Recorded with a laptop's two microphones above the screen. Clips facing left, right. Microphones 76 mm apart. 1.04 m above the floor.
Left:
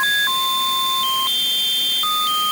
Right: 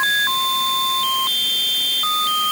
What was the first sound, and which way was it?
Only background noise.